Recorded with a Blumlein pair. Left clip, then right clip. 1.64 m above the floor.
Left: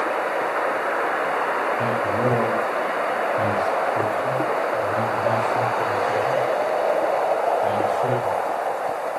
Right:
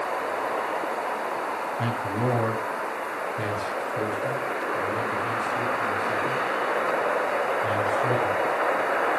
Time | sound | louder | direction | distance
1.8 | a man speaking | left 6 dB | straight ahead | 3 m